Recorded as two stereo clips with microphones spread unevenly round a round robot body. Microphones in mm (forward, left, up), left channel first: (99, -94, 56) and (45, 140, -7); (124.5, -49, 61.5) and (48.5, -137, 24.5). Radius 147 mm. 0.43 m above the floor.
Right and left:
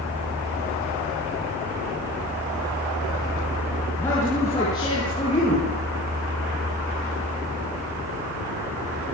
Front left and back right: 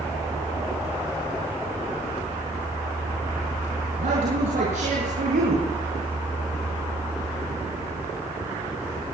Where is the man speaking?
160° right, 7.5 m; by 5.7 s 150° right, 8.5 m.